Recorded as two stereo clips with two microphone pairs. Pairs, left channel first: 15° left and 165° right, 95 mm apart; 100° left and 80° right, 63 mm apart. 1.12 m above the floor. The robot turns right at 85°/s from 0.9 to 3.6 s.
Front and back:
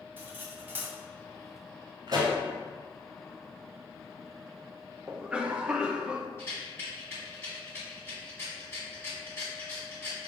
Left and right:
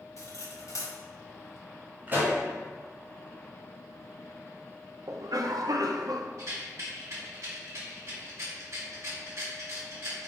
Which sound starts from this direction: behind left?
Cutlery clinking, at 0.2 s.